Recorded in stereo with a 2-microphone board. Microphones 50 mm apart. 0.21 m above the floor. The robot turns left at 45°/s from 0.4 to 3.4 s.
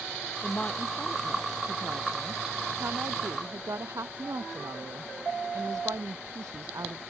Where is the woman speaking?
35° left; by 7.0 s 100° right.